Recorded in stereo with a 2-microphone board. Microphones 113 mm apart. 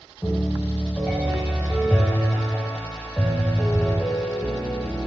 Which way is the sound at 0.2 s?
15° left (ahead or behind).